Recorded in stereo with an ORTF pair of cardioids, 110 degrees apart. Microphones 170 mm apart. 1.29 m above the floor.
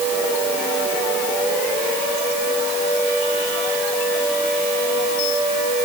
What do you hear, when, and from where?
Only background noise.